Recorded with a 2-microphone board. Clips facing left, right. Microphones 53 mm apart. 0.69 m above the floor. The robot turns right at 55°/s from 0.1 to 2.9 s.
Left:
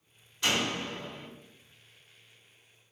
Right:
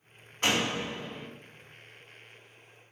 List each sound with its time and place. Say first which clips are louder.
0.4 s a door slam: right 2 dB; 50° right, 0.9 m; by 1.3 s straight ahead, 0.9 m